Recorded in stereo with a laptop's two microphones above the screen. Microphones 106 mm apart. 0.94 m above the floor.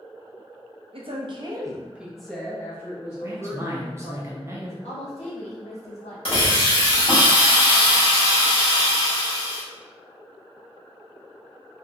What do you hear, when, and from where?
0.9 s a woman speaking: 60° right (ahead or behind), 0.8 m; by 4.2 s 35° left (ahead or behind), 2.0 m
3.2 s a man speaking: 25° right (ahead or behind), 0.8 m
4.8 s a woman speaking: 75° left (ahead or behind), 1.5 m
6.2 s a hiss: 60° left (ahead or behind), 1.9 m